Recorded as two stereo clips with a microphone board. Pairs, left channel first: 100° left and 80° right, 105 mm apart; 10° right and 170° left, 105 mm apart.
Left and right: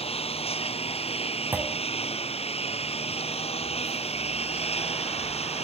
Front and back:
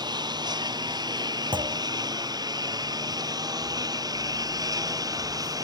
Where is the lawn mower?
120° left; by 5.7 s 115° left.